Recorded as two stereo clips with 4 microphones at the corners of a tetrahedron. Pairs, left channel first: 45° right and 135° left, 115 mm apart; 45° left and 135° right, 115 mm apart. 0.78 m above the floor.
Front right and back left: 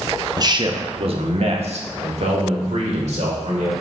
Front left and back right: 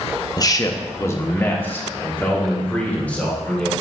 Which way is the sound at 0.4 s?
95° left.